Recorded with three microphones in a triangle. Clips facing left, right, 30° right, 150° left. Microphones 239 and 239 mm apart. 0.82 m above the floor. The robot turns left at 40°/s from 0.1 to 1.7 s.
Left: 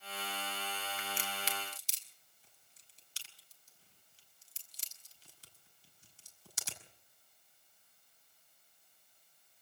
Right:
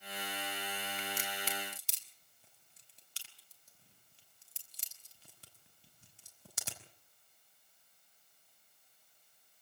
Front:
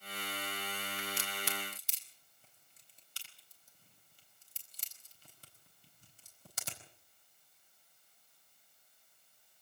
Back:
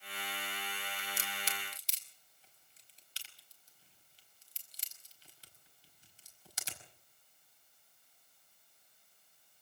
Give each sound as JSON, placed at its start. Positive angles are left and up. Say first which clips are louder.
{"t": 1.0, "sound": "a crack", "louder": "right 1 dB, front 4 dB", "azimuth_deg": -35, "distance_m": 5.0}